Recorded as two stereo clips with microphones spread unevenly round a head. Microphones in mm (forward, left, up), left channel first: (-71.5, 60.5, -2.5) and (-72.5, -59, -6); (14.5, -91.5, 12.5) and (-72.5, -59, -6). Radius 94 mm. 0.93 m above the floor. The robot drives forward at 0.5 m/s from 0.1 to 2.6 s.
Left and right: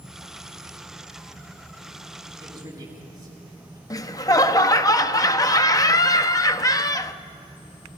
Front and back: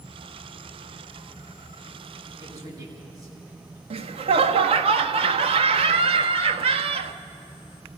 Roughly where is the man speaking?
Behind right.